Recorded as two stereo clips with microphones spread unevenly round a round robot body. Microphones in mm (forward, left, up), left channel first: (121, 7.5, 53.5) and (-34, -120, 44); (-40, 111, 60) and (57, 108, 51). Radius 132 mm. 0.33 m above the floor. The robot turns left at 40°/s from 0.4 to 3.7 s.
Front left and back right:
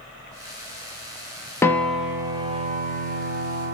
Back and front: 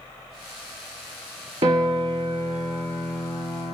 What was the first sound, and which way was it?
A piano, 40° right.